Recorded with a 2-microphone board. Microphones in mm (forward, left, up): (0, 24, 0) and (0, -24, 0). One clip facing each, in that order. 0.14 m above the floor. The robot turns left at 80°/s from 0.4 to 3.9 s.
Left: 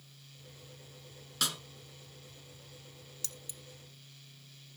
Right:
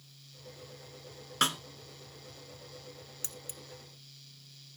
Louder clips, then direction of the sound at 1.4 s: Right 6 dB; 45° right (ahead or behind).